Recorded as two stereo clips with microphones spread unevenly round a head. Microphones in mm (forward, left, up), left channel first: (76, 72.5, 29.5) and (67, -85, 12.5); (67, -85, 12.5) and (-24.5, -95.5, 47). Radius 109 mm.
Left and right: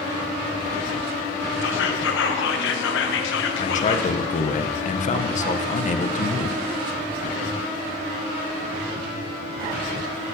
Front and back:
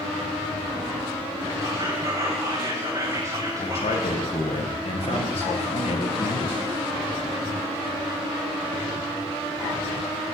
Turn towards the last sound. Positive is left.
turn(degrees=40)